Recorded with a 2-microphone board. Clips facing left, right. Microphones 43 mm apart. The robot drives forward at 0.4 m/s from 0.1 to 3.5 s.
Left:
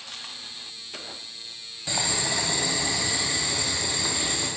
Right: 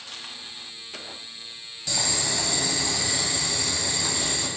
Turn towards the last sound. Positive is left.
turn(degrees=15)  # may be behind; listen again after turning